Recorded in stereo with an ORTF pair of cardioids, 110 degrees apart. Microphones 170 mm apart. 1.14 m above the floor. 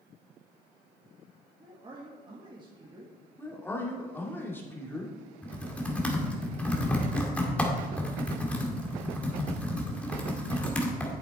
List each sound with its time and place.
1.6 s a man speaking: 25° right, 1.6 m
3.4 s a man speaking: 15° left, 2.5 m
5.4 s typing on a keyboard: 10° left, 1.9 m